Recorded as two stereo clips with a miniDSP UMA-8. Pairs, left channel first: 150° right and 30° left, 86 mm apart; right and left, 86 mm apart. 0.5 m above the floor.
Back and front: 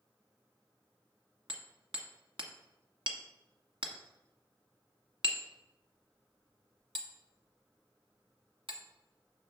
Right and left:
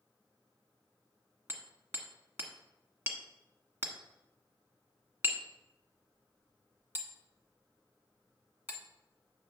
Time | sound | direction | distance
1.5 | hammering | 25° left | 1.4 m